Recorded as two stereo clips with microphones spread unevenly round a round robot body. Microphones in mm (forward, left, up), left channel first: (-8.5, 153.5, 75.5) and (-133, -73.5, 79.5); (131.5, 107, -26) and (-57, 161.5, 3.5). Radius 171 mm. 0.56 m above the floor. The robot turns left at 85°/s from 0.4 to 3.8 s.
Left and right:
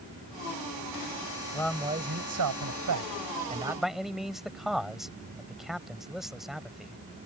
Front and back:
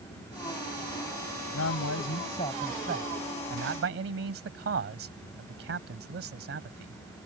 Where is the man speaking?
15° right; by 7.0 s 150° left.